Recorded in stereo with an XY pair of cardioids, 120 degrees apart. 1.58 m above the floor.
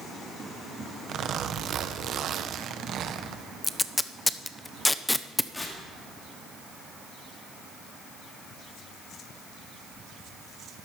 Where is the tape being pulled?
10° left, 0.6 m.